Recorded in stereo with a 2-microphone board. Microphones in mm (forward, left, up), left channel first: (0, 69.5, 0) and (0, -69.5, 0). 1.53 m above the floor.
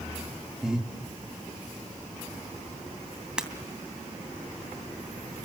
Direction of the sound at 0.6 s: 5° right (ahead or behind).